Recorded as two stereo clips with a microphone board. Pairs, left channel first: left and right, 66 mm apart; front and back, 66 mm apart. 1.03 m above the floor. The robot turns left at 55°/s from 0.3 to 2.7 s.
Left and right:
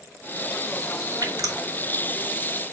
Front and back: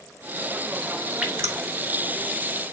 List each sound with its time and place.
1.2 s dripping: 110° right, 3.5 m; by 1.6 s 130° right, 3.5 m